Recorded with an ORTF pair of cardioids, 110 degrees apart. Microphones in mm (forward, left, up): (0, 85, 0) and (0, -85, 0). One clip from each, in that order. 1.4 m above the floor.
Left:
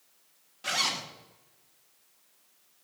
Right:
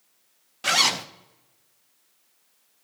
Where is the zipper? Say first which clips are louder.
Right 8 dB; 50° right, 0.9 m.